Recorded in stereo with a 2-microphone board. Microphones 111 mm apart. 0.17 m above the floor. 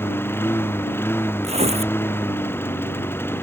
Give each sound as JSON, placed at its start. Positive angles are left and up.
{"t": 0.0, "sound": "a lawn mower", "side_deg": 20}
{"t": 1.4, "sound": "tearing paper", "side_deg": -75}